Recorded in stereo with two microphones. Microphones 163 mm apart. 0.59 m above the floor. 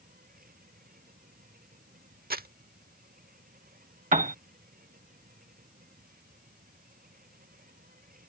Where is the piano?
50° right (ahead or behind).